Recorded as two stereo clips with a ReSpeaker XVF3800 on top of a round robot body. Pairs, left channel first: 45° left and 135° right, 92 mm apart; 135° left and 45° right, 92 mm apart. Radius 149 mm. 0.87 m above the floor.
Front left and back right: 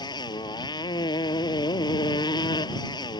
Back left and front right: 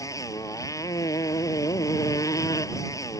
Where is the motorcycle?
85° left.